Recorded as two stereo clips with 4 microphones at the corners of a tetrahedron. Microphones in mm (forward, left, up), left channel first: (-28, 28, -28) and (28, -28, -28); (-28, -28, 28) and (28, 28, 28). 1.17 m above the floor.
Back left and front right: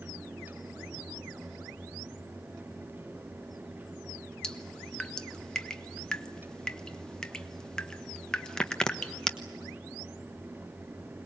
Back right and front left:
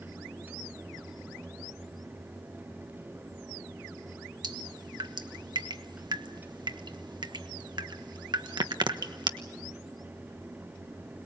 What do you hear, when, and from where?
4.4 s dripping: 55° left, 1.2 m